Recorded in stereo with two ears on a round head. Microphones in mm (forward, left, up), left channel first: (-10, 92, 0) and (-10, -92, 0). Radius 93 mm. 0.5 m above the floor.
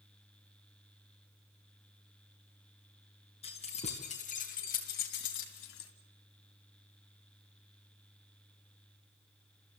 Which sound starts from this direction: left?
Keys jangling, at 3.4 s.